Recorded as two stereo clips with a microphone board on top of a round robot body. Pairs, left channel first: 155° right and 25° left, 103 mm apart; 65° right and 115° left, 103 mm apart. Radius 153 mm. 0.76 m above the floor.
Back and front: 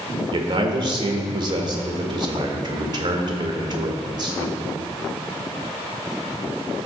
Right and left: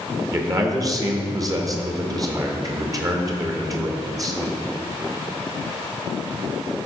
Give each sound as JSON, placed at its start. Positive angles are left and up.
{"t": 0.3, "sound": "a man speaking", "azimuth_deg": 60, "distance_m": 1.7}